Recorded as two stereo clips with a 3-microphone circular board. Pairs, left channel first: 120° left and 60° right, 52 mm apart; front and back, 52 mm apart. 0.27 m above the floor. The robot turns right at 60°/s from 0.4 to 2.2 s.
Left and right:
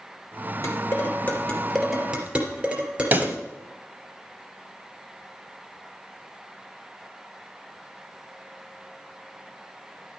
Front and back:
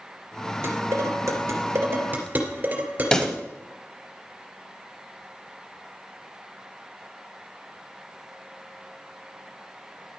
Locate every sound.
0.6 s dishes clattering: 140° left, 3 m; by 3.4 s 125° right, 3 m
3.1 s a pop: 70° right, 1.1 m